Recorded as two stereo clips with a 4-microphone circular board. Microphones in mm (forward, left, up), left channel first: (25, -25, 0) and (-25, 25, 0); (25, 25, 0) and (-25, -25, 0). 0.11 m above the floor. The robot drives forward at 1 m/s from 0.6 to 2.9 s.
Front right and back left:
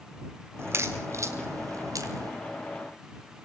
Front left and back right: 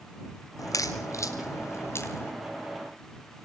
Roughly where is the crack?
Left.